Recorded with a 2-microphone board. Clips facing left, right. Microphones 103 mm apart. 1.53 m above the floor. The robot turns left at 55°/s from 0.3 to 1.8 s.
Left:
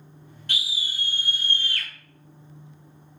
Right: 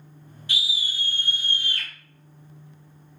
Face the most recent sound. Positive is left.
turn(degrees=-20)